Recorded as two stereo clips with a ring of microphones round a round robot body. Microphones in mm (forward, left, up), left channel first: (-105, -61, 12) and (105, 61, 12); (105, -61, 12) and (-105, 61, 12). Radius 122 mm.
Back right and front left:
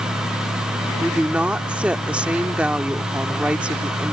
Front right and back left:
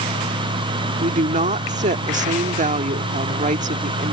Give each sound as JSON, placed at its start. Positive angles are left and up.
{"t": 1.0, "sound": "a woman speaking", "azimuth_deg": 115}